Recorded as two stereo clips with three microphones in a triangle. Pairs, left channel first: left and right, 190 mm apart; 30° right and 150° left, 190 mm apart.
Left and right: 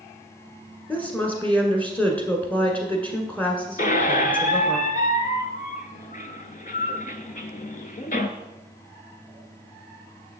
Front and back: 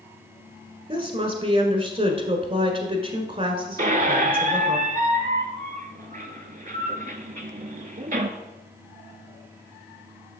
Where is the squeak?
120° left, 0.6 m.